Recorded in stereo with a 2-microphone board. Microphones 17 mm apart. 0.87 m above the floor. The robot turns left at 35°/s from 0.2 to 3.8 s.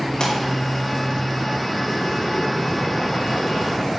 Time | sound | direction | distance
0.2 | a pop | 65° left (ahead or behind) | 3.5 m